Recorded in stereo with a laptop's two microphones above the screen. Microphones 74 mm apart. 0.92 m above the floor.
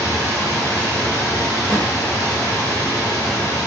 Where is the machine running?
60° left (ahead or behind), 1.0 m.